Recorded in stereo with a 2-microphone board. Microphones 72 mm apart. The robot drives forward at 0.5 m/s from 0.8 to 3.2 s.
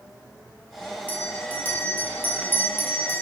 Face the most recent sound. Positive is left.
turn(degrees=30)  # may be behind; listen again after turning